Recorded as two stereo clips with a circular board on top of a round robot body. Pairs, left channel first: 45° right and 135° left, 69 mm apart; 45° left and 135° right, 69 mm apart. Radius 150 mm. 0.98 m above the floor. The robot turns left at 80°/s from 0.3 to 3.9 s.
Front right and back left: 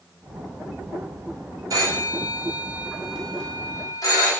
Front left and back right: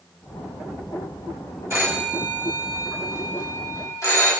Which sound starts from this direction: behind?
A phone ringing, at 1.7 s.